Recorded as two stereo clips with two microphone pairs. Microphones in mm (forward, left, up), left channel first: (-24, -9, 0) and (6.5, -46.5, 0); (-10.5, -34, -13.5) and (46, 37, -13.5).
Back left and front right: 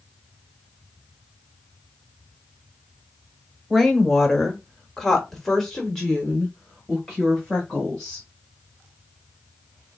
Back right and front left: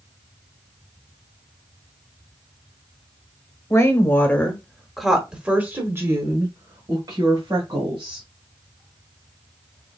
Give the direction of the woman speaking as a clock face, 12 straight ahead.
5 o'clock.